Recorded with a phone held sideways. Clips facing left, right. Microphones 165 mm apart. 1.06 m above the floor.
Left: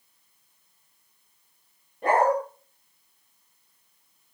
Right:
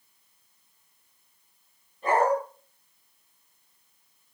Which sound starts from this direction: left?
A dog barking, at 2.0 s.